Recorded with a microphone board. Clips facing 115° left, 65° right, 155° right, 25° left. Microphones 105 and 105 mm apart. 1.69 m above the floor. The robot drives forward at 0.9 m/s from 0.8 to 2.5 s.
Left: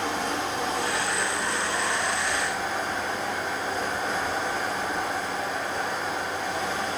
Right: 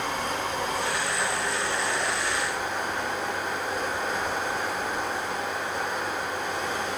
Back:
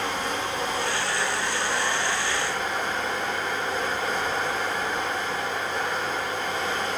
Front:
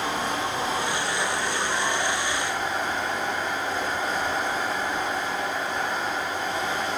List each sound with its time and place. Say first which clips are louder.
0.0 s running water: left 1 dB, front 1 dB; 100° left, 7 m; by 7.0 s 115° left, 7.5 m